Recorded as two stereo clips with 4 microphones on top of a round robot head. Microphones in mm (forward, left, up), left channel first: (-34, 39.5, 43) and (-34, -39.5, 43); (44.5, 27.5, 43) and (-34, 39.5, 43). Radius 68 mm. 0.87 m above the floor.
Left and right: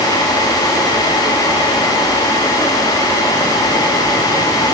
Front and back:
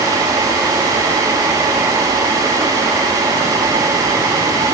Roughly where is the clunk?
No clunk in this recording.